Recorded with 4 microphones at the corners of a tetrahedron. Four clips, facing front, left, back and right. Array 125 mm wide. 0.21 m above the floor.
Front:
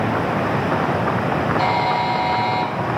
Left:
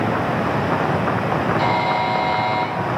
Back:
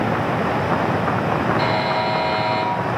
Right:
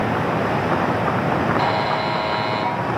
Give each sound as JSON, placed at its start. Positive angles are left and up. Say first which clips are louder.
{"t": 1.6, "sound": "a buzzer", "louder": "left 1 dB, front 1 dB", "azimuth_deg": -140, "distance_m": 3.0}